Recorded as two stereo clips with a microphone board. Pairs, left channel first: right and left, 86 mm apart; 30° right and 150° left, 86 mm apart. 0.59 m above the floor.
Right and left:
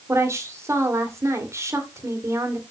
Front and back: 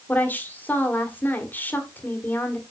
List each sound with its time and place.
0.1 s a woman speaking: 35° left, 1.8 m